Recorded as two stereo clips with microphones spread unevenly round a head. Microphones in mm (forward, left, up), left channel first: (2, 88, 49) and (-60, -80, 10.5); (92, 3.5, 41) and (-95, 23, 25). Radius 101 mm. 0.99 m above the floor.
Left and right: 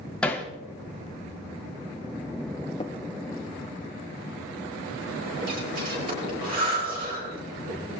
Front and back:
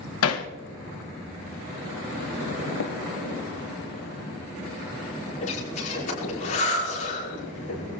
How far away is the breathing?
About 8 m.